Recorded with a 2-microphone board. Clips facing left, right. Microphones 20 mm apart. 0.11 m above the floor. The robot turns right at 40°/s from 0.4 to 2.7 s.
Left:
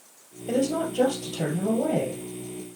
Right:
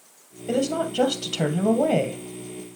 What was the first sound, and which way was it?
A woman speaking, 165° right.